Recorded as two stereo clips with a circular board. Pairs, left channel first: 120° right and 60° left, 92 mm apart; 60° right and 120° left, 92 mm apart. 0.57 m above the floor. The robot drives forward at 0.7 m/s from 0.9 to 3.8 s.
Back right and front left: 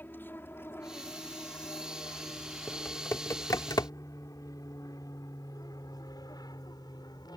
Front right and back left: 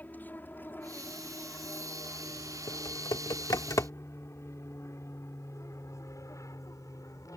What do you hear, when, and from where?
0.0 s an aircraft: 95° right; by 7.4 s 100° right
2.7 s typing on a keyboard: 50° right; by 3.9 s 95° right